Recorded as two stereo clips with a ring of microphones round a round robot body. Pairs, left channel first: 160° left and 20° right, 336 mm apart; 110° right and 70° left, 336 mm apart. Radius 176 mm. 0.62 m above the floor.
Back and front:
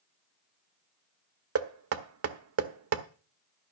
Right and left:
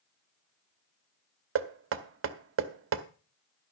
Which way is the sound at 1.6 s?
20° left.